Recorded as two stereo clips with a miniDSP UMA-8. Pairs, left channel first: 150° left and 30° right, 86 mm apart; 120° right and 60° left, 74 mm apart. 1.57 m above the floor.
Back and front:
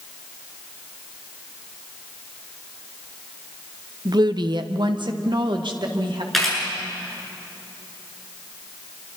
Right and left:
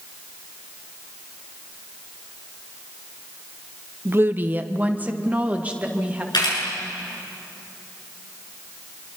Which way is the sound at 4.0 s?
5° left.